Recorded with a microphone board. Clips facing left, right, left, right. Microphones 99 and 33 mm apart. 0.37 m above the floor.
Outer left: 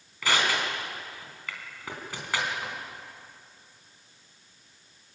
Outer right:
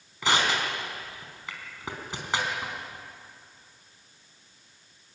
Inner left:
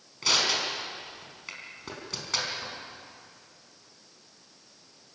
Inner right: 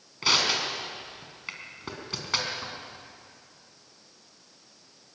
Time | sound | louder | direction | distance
0.2 | crushing | outer right 1 dB, inner right 1 dB | 20° right (ahead or behind) | 4.5 m